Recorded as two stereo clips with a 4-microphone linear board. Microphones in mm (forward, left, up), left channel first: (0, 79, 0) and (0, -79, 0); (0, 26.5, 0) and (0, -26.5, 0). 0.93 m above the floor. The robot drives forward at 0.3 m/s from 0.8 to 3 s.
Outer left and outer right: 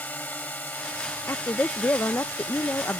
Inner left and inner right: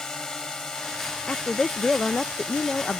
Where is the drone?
10° left (ahead or behind).